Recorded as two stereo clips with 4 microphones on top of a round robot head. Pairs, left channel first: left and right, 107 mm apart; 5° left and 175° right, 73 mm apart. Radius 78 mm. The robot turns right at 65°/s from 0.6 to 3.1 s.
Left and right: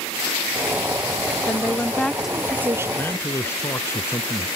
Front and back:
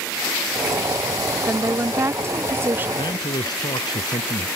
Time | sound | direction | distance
1.4 | a woman speaking | 135° left | ?
3.0 | a man speaking | 15° left | ?